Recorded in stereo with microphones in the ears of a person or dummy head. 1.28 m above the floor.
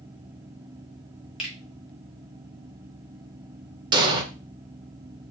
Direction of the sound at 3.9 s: 25° right (ahead or behind).